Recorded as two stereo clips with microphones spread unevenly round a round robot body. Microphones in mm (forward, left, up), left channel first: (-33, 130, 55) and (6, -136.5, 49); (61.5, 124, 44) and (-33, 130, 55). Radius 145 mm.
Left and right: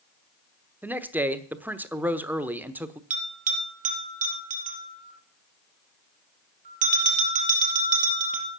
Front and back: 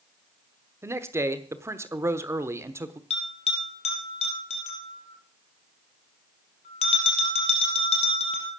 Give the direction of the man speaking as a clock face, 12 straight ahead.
5 o'clock.